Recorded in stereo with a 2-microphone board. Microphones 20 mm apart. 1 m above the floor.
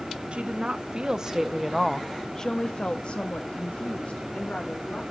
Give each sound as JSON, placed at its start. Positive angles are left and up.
{"t": 0.3, "sound": "a woman speaking", "side_deg": -55, "distance_m": 1.2}